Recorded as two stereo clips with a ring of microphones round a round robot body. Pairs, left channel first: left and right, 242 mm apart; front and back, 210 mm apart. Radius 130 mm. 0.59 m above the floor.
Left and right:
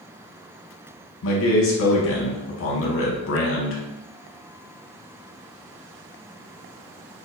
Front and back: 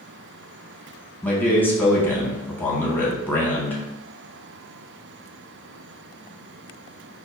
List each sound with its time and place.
1.2 s a man speaking: 80° left, 0.9 m